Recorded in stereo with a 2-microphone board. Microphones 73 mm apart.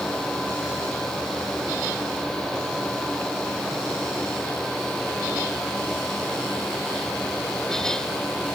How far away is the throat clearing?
No throat clearing in this recording.